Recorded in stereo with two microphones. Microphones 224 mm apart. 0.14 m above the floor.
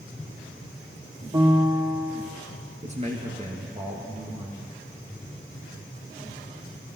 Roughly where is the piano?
Right.